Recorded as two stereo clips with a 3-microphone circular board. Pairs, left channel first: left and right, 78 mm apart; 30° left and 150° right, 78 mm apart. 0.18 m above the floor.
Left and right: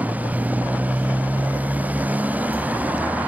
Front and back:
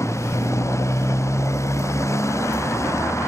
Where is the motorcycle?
20° right.